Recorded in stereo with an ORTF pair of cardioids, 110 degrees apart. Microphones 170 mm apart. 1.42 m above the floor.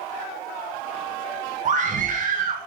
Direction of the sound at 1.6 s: 50° right.